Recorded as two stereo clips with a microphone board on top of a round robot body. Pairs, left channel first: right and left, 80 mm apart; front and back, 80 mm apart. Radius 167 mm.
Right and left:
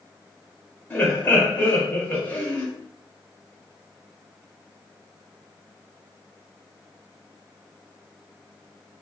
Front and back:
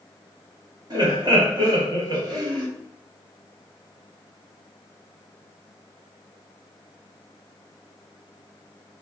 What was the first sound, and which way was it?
Laughter, 160° right.